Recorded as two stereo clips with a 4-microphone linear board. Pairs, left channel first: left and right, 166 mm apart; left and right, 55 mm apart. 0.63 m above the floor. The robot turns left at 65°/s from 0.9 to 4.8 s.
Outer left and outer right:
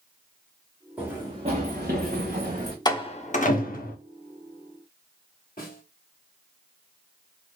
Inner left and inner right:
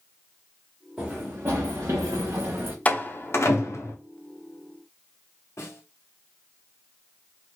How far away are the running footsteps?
About 2.5 m.